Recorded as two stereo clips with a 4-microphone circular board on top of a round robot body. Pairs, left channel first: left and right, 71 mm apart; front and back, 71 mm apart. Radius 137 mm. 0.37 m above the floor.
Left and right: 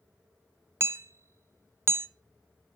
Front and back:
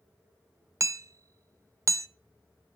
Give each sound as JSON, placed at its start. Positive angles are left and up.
{"t": 0.8, "sound": "hammering", "azimuth_deg": -140, "distance_m": 0.7}